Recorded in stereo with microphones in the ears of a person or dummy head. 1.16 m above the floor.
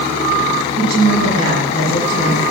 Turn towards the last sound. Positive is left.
turn(degrees=-35)  # may be behind; listen again after turning